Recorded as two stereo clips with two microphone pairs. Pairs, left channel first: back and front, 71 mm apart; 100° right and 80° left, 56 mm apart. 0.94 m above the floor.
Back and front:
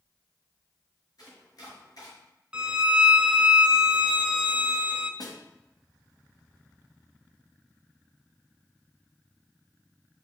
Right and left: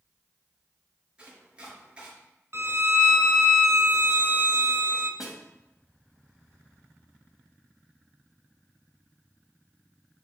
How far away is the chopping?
About 5 m.